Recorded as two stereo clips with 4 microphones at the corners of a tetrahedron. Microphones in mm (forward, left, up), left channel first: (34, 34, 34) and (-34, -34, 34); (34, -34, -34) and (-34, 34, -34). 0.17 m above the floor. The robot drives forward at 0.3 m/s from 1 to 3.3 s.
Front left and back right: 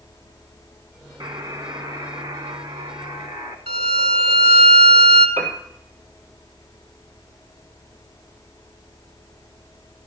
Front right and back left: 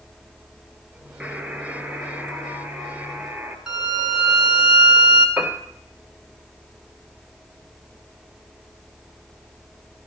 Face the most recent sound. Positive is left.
turn(degrees=-150)